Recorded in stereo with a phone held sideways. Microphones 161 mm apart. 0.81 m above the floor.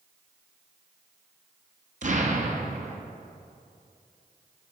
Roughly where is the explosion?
Right.